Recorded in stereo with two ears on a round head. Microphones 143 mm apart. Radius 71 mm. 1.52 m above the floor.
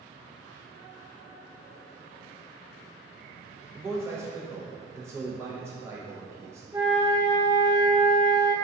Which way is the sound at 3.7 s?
15° right (ahead or behind).